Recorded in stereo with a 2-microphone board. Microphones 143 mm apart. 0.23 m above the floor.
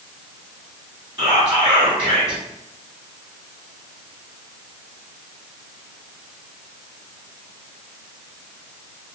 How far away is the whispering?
About 1.2 m.